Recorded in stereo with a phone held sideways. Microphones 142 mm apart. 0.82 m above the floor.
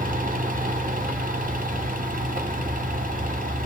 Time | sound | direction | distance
0.0 | a fan | 75° right (ahead or behind) | 0.9 m